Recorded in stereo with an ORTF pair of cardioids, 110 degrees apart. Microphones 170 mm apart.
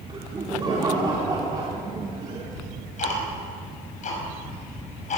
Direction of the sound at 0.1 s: 25° right.